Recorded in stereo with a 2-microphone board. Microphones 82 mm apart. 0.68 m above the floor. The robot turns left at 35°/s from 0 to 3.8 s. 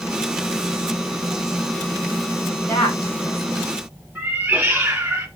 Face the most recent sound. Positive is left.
turn(degrees=-20)  # may be behind; listen again after turning